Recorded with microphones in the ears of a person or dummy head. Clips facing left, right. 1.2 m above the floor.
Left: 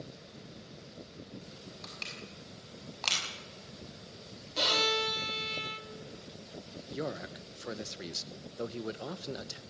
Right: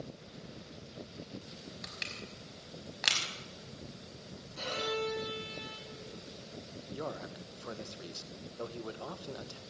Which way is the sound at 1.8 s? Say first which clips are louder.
Even; 15° right (ahead or behind).